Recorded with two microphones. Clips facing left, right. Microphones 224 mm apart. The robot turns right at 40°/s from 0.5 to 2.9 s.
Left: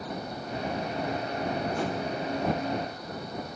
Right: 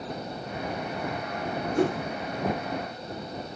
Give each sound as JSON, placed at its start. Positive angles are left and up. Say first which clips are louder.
{"t": 1.8, "sound": "a whoosh", "louder": "right 6 dB", "side_deg": -55}